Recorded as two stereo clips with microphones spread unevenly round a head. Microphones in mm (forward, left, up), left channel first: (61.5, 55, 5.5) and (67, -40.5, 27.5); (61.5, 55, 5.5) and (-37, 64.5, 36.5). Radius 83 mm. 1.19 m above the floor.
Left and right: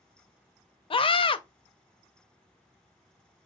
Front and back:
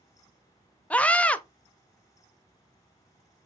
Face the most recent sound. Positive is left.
turn(degrees=70)